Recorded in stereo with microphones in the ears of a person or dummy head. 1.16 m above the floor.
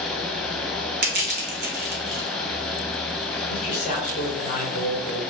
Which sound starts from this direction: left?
A man speaking, at 3.5 s.